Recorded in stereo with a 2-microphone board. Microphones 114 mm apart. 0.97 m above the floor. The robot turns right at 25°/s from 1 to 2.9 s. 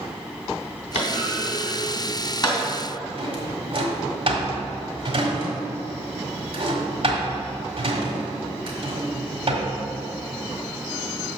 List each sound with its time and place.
0.9 s a clunk: 75° left (ahead or behind), 2.5 m; by 2.6 s 35° left (ahead or behind), 2.5 m
3.2 s a drawer: 55° right (ahead or behind), 1.6 m